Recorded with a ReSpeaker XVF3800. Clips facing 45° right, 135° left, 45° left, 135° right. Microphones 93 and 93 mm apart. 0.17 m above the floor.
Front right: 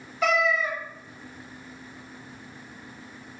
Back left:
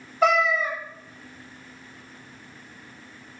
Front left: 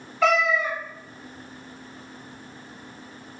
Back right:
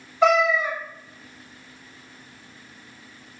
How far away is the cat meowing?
About 0.9 m.